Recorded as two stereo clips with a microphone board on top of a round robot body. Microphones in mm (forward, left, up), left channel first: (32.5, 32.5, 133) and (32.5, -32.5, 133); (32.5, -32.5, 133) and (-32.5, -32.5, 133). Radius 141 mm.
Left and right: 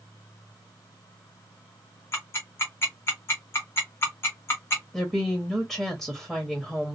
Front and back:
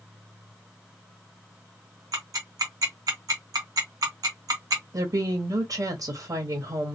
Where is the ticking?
145° left, 0.6 m.